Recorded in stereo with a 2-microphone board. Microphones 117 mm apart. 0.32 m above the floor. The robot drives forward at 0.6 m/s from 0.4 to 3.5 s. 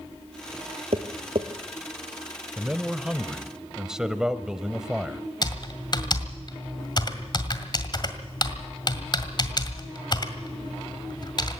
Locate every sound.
0.9 s tapping: 65° right (ahead or behind), 1.5 m; by 1.5 s 55° right (ahead or behind), 1.7 m
2.6 s a man speaking: 10° right (ahead or behind), 0.8 m; by 5.2 s 5° right (ahead or behind), 1.1 m
5.4 s typing on a keyboard: 40° left (ahead or behind), 1.9 m